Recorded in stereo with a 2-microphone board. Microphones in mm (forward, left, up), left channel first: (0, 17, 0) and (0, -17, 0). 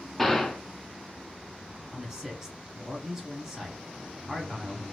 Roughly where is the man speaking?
Centre.